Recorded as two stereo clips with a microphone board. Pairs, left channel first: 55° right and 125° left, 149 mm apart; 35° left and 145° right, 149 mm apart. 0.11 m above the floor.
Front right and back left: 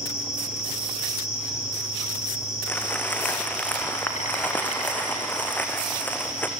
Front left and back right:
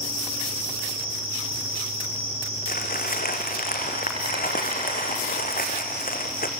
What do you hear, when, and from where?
0.0 s an insect: 95° right, 6 m
2.7 s crumpling: 25° left, 2.5 m